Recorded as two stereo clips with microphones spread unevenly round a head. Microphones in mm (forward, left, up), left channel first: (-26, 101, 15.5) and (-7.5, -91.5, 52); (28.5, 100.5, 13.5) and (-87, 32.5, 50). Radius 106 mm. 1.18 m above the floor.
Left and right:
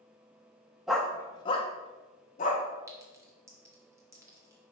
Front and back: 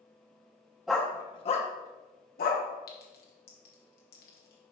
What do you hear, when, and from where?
0.9 s a dog barking: 135° right, 0.5 m; by 2.6 s 35° left, 1.1 m
2.9 s a clink: 10° right, 1.0 m